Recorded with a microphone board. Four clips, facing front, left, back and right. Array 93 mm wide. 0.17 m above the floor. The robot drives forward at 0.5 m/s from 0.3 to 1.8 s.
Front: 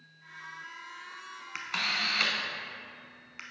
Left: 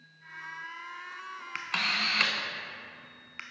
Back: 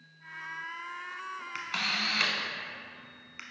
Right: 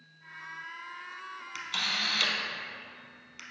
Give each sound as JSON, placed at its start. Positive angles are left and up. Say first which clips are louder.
{"t": 1.6, "sound": "a camera shutter", "louder": "left 3 dB, front 1 dB", "azimuth_deg": 80, "distance_m": 0.8}